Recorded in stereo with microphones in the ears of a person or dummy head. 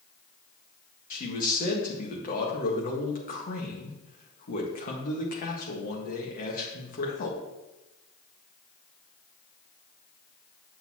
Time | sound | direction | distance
1.1 | a man speaking | 45° left (ahead or behind) | 1.5 m